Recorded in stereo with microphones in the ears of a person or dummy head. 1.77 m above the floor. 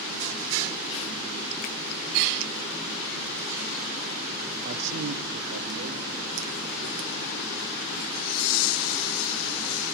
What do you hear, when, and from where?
4.7 s a man speaking: 50° right (ahead or behind), 0.8 m; by 7.5 s 25° right (ahead or behind), 3.5 m